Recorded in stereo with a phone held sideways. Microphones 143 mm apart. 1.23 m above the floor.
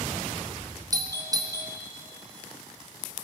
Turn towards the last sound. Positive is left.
turn(degrees=-25)  # may be behind; listen again after turning